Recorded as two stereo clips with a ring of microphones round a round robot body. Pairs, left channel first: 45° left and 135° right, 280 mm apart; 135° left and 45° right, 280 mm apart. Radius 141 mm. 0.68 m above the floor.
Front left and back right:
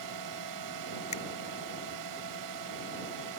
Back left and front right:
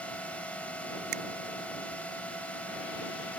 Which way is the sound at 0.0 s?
140° right.